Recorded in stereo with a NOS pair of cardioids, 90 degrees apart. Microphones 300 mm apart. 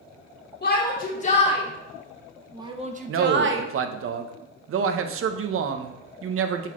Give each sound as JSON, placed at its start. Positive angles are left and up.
{"t": 0.6, "sound": "a shout", "azimuth_deg": 35, "distance_m": 1.5}
{"t": 3.1, "sound": "a man speaking", "azimuth_deg": -50, "distance_m": 0.8}